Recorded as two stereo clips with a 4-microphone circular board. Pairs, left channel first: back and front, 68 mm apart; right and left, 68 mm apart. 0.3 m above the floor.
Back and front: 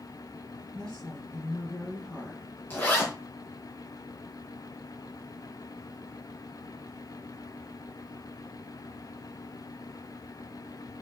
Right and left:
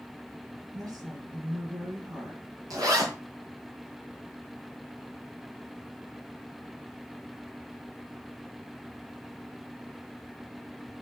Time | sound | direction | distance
0.7 | a woman speaking | 105° left | 5 m
2.7 | a zipper | 115° left | 5 m